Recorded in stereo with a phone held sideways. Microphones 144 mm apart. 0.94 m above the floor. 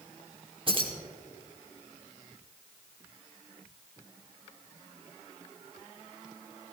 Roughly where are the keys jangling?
Right.